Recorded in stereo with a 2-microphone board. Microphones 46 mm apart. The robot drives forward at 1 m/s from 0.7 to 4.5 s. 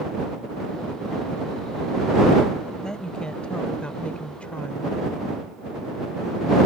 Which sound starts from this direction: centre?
A woman speaking, at 2.8 s.